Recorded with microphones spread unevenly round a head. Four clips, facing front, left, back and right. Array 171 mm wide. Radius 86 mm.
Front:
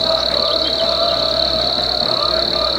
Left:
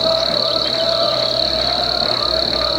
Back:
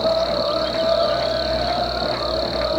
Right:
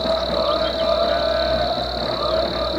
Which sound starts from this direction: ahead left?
An insect, at 0.0 s.